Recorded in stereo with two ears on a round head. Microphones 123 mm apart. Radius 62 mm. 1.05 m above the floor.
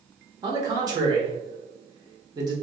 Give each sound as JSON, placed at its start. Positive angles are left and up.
{"t": 0.4, "sound": "a man speaking", "side_deg": -30, "distance_m": 1.0}